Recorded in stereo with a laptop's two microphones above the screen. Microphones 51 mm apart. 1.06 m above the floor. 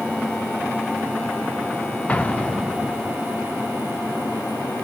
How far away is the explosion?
About 0.7 m.